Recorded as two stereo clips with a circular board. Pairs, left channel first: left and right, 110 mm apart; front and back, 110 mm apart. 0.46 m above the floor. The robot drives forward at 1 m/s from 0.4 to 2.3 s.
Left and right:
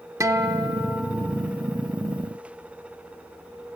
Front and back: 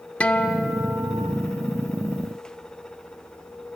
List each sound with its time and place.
0.2 s a guitar: 65° right, 0.8 m; by 1.3 s 155° right, 1.1 m